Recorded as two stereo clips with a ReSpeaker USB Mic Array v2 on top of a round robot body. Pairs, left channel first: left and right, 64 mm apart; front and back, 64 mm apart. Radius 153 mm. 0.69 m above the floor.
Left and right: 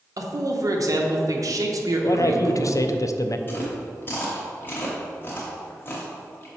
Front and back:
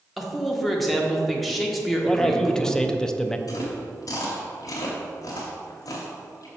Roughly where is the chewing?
Ahead left.